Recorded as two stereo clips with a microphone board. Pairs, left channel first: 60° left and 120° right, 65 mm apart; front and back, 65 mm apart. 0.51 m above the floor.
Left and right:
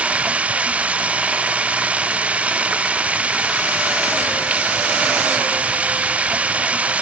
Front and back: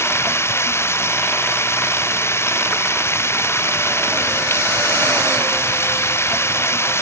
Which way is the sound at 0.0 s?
50° right.